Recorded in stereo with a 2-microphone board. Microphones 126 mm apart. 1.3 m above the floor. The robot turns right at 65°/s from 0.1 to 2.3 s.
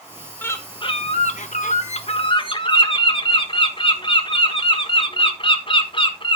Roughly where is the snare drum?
No snare drum in this recording.